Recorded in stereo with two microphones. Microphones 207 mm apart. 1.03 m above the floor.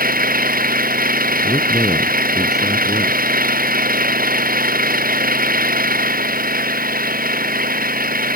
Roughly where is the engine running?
Right.